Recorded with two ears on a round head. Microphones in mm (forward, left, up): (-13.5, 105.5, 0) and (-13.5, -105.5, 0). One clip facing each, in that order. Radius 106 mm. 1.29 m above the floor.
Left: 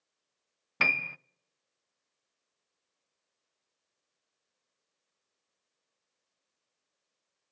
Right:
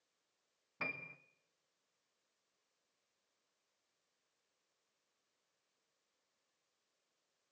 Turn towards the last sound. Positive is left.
turn(degrees=75)  # may be behind; listen again after turning